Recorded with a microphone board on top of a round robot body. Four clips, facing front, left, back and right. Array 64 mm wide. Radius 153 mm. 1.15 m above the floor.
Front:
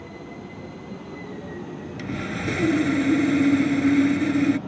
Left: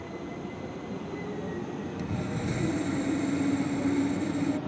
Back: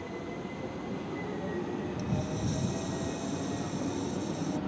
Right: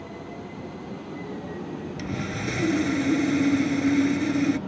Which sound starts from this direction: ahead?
Sawing, at 2.0 s.